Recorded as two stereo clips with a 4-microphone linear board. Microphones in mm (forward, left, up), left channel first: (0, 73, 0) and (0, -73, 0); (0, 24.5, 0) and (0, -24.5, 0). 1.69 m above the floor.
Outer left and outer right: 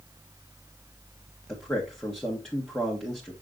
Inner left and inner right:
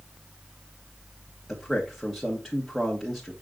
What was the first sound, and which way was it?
A man speaking, 5° left (ahead or behind).